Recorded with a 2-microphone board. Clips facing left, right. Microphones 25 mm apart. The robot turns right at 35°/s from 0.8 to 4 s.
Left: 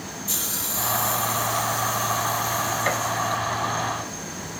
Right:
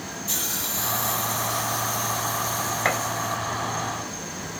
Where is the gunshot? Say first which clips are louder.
Right 3 dB; 75° right (ahead or behind), 1.4 m; by 3.0 s 80° right, 1.4 m.